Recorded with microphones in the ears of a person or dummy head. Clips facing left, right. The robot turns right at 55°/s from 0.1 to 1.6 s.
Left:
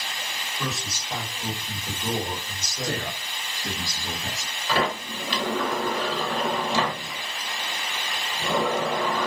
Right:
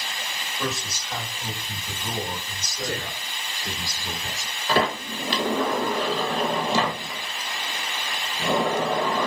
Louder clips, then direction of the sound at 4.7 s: Right 2 dB; 35° right (ahead or behind).